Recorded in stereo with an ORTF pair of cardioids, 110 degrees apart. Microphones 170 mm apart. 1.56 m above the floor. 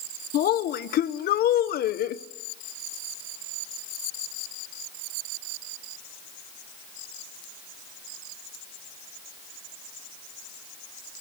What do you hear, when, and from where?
0.3 s a woman speaking: 65° left, 1.0 m